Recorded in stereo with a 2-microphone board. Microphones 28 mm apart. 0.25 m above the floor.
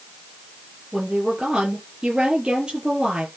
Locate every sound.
0.9 s a woman speaking: 35° right (ahead or behind), 5.5 m